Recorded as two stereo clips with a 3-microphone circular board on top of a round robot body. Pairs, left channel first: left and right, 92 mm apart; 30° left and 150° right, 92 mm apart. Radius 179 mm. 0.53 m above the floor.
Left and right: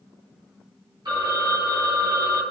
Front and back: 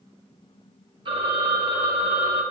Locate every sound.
1.1 s a phone ringing: 130° right, 1.4 m